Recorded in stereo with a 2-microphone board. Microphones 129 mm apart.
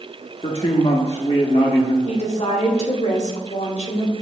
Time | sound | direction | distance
0.4 | a man speaking | 55° left (ahead or behind) | 0.7 m
2.0 | a woman speaking | 65° left (ahead or behind) | 1.6 m